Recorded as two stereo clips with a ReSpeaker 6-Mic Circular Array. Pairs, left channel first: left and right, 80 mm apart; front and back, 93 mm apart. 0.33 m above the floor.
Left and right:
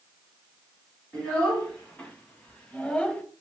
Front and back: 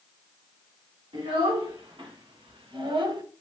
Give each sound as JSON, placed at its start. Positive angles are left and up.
{"t": 1.1, "sound": "a child speaking", "azimuth_deg": 165, "distance_m": 2.0}